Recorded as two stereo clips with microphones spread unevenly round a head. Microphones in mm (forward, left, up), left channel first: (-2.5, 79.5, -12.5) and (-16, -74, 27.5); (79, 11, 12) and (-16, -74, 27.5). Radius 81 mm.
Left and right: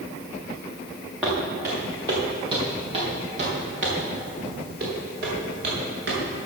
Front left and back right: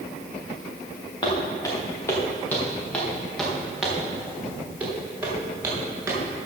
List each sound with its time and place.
1.2 s footsteps: 15° right, 4 m; by 6.2 s 70° right, 7.5 m